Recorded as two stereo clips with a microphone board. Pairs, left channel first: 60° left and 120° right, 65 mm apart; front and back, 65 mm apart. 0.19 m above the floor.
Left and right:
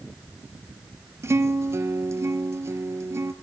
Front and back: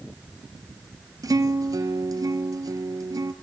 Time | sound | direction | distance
1.2 | a guitar | 165° right | 1.1 m